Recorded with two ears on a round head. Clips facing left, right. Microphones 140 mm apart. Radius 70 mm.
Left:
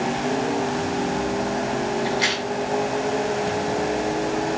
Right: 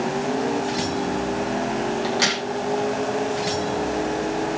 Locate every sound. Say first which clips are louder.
2.0 s a crack: even; 55° right (ahead or behind), 6.5 m